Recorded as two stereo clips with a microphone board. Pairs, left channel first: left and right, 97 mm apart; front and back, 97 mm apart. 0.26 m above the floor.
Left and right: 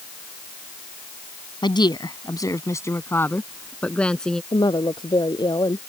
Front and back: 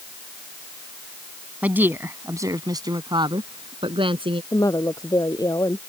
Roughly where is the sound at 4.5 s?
Ahead left.